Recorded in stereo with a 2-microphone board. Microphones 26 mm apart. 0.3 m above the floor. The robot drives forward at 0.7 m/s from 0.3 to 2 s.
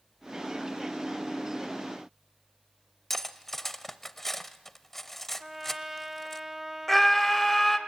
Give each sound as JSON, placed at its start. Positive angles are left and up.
{"t": 3.1, "sound": "cutlery clinking", "side_deg": 10, "distance_m": 0.7}
{"t": 5.4, "sound": "a trumpet", "side_deg": -15, "distance_m": 1.0}
{"t": 6.9, "sound": "a scream", "side_deg": 5, "distance_m": 1.3}